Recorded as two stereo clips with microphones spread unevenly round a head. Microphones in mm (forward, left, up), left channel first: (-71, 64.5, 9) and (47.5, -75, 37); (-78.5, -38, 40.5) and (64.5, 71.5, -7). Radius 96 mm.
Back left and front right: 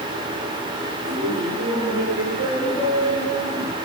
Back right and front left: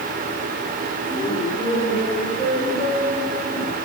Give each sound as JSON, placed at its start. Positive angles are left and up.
{"t": 1.1, "sound": "laughter", "azimuth_deg": -65, "distance_m": 6.0}